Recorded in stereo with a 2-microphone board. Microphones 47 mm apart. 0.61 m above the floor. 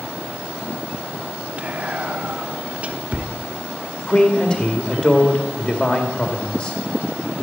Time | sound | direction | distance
1.6 | whispering | 30° right (ahead or behind) | 0.8 m
4.1 | a man speaking | 20° left (ahead or behind) | 1.8 m